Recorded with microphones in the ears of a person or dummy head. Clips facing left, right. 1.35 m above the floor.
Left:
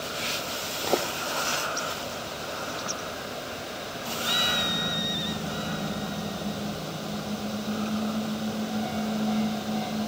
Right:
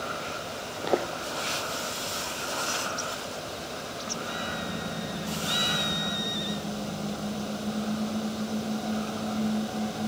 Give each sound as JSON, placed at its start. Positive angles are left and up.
{"t": 0.8, "sound": "footsteps", "side_deg": -5}